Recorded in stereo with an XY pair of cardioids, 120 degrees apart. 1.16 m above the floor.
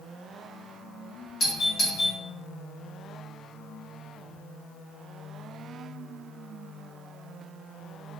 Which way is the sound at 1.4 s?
45° left.